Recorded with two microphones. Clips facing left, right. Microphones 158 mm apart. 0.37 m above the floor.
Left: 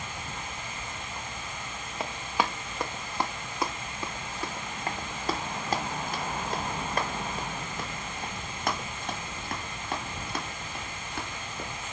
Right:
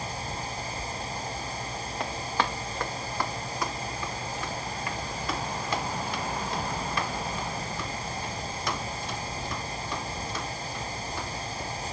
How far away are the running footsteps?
About 1.5 m.